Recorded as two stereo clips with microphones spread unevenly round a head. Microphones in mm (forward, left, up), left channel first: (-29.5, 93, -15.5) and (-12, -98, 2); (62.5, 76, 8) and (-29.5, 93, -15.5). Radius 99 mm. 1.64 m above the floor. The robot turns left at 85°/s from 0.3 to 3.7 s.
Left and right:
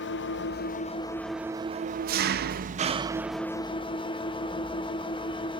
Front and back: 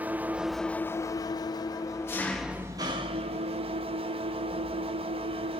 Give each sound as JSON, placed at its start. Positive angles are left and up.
{"t": 0.0, "sound": "an engine running", "azimuth_deg": 90, "distance_m": 0.8}